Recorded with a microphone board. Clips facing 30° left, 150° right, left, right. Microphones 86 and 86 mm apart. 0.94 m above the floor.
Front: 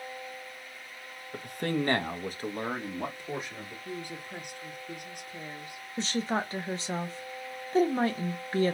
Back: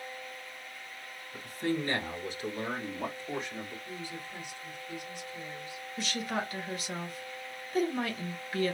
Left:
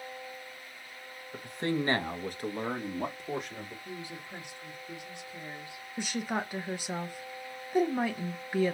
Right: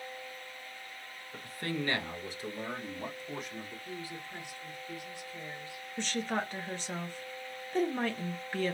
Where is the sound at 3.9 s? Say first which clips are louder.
Front 2 dB, even; 25° left, 1.1 m.